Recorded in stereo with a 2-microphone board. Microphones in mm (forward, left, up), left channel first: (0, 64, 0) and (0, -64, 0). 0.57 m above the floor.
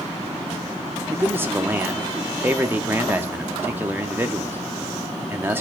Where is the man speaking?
15° right (ahead or behind), 0.7 m.